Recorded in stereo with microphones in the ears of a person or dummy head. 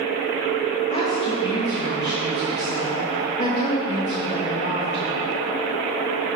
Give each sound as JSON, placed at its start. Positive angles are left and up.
{"t": 0.9, "sound": "a woman speaking", "side_deg": 35, "distance_m": 1.1}